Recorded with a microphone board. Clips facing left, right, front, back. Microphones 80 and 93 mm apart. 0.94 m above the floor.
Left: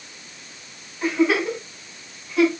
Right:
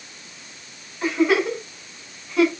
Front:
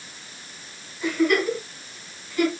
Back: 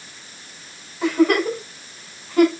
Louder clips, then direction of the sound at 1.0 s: Right 1 dB, back 4 dB; straight behind.